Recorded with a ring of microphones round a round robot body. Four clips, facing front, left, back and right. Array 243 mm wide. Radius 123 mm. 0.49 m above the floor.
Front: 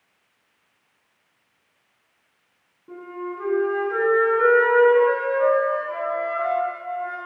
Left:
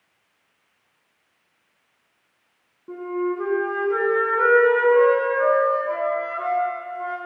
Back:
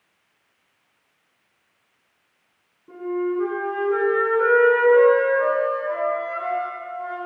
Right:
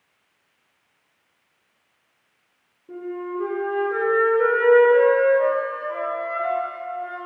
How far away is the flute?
About 2.5 m.